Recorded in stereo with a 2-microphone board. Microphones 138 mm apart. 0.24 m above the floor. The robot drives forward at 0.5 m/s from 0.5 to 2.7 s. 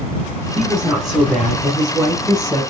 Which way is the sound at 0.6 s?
Centre (ahead or behind).